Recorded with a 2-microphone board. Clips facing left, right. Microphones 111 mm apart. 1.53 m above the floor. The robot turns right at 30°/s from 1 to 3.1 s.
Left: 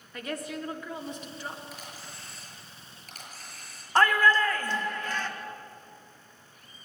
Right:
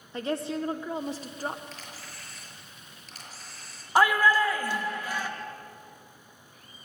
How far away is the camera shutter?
About 6 m.